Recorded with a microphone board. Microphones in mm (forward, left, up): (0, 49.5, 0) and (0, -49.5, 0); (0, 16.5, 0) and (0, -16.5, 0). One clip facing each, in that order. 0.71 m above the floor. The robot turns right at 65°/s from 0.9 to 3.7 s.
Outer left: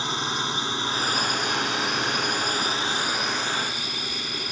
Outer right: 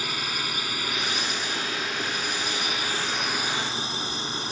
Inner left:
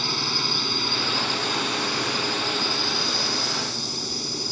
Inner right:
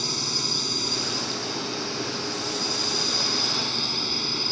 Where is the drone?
30° left; by 4.5 s 150° right.